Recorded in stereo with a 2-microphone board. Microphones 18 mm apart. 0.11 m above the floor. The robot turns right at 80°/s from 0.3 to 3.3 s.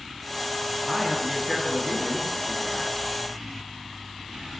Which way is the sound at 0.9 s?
Centre (ahead or behind).